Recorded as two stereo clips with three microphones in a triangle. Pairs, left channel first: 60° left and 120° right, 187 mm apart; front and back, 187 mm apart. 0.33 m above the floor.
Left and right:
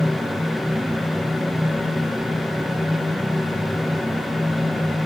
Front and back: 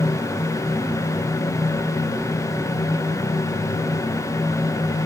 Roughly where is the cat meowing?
No cat meowing in this recording.